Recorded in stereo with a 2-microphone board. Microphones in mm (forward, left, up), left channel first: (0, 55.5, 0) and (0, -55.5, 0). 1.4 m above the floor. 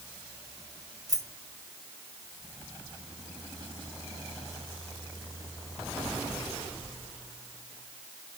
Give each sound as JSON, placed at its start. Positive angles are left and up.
{"t": 1.1, "sound": "keys jangling", "side_deg": -80, "distance_m": 4.5}